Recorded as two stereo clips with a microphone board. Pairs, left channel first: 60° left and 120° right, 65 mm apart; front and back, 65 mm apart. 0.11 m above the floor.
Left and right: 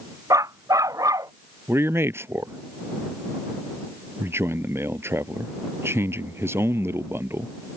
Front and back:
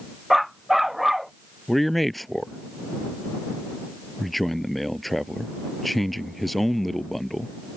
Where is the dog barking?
90° right; by 1.3 s 95° right.